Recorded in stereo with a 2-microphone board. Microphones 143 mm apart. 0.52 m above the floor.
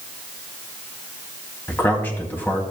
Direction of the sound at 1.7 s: 15° left (ahead or behind).